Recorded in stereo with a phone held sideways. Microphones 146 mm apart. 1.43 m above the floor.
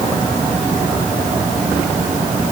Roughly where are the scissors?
No scissors in this recording.